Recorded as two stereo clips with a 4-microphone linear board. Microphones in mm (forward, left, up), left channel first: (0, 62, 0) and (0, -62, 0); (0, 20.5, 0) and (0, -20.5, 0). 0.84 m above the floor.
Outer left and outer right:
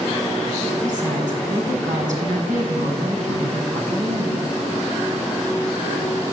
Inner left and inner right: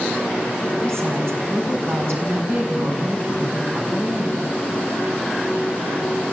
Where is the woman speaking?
85° right, 6.5 m.